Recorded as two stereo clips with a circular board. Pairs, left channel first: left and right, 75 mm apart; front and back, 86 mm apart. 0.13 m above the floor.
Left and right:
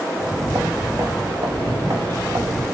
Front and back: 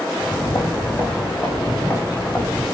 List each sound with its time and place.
0.1 s footsteps: 50° right, 4 m; by 2.6 s 70° right, 4 m